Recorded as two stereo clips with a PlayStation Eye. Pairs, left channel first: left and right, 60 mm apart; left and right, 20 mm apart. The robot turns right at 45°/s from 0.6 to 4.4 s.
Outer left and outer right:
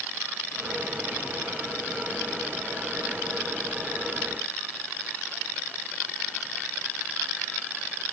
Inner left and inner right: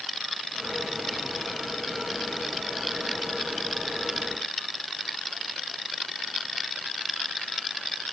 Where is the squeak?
I don't hear a squeak.